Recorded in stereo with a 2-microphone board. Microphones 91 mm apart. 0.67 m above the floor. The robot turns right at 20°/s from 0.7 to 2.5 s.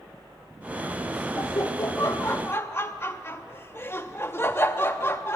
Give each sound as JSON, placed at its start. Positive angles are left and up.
{"t": 1.4, "sound": "laughter", "side_deg": 40, "distance_m": 0.6}